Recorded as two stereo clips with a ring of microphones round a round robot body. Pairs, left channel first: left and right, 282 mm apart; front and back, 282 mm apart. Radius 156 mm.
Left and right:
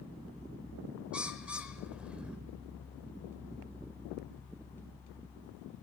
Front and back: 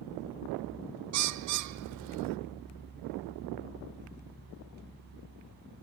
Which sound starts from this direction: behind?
A bird, at 1.1 s.